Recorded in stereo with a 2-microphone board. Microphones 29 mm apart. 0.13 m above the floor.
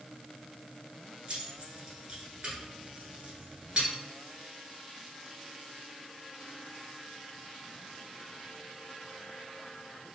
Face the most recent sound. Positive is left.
turn(degrees=-35)  # may be behind; listen again after turning